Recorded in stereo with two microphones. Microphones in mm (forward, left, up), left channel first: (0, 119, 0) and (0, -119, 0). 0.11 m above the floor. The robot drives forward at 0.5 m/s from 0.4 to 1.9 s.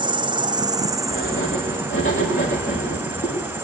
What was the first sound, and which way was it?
An insect, 20° right (ahead or behind).